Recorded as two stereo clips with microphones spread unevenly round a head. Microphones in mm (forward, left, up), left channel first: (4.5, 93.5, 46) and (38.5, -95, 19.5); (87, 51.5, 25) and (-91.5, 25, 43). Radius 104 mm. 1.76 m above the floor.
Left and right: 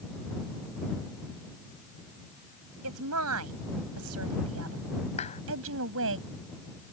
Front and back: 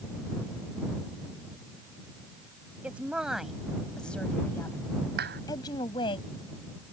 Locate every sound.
2.8 s a woman speaking: 90° right; by 6.2 s 60° right
5.2 s a clap: 160° left